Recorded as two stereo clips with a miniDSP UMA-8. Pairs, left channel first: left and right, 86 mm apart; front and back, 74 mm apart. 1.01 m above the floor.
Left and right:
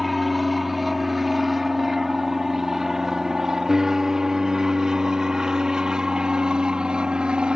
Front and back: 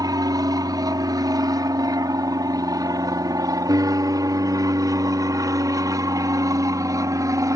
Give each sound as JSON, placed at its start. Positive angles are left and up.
{"t": 0.0, "sound": "an aircraft", "azimuth_deg": 180}